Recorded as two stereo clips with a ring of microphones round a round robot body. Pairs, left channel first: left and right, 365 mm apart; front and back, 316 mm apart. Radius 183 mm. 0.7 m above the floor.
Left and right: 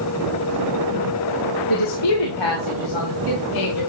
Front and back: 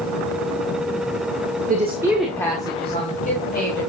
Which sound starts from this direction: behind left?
A woman speaking, at 1.7 s.